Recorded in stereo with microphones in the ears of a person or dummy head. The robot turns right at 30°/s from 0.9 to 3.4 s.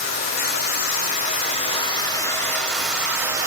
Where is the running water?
115° left, 3 m; by 3.5 s 170° right, 3 m.